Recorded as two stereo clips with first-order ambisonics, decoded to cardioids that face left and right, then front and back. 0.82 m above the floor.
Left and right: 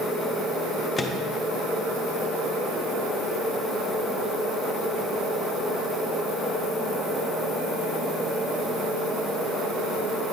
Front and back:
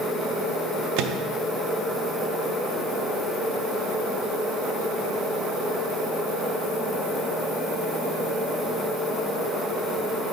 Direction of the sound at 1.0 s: 170° left.